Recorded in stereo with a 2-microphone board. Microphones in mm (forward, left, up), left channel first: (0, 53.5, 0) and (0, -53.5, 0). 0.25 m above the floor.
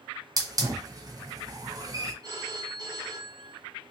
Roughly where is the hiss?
Right.